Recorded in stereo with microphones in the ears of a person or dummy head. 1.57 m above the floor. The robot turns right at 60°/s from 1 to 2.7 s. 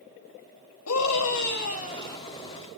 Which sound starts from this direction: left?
A scream, at 0.9 s.